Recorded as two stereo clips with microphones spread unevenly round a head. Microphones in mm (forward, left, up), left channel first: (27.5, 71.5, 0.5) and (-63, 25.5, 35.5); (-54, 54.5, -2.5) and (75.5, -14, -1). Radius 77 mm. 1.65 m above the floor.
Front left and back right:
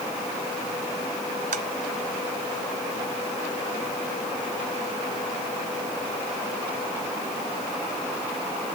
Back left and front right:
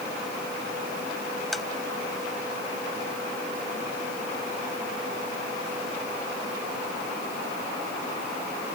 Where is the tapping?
120° right.